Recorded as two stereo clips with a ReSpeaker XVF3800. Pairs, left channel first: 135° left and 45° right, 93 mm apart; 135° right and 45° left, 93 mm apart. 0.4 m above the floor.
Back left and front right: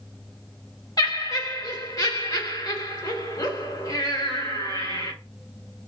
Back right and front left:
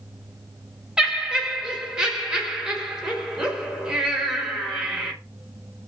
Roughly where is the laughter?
Behind left.